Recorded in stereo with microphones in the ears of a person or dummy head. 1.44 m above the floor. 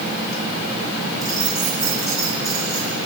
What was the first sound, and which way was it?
Keys jangling, 20° right (ahead or behind).